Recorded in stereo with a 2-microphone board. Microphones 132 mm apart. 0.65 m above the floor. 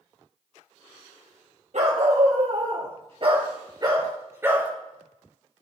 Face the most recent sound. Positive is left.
turn(degrees=-10)  # may be behind; listen again after turning